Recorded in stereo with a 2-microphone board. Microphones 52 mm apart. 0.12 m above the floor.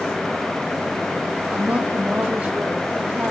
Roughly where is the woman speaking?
Right.